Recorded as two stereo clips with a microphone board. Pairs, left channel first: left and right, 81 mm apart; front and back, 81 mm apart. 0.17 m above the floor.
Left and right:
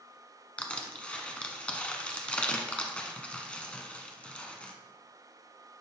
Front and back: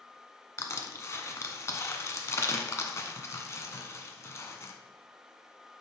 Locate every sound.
0.6 s crushing: 25° left, 0.9 m